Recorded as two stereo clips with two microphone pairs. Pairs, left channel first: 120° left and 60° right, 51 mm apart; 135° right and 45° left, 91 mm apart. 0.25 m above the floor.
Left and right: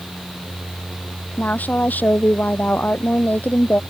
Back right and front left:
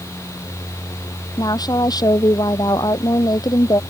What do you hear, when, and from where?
1.4 s a woman speaking: straight behind